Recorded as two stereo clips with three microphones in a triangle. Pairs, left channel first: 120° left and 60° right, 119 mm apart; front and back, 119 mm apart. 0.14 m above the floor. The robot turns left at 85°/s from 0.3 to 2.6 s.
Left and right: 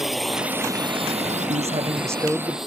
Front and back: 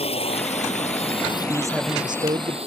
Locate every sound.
0.0 s a drone: 30° left; by 2.7 s 145° right
1.5 s a man speaking: 75° right; by 2.6 s 165° right